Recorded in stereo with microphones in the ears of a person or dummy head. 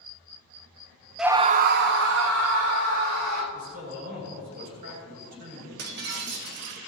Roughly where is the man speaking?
Right.